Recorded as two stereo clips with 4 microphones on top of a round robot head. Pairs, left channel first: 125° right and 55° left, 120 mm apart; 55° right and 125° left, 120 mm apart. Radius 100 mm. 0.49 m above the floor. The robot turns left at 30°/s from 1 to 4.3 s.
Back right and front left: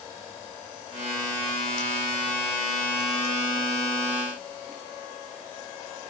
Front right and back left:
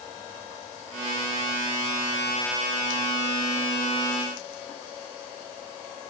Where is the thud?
No thud in this recording.